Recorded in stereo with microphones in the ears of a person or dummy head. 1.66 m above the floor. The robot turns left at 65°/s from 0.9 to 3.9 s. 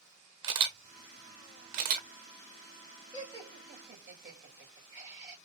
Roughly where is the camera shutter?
Right.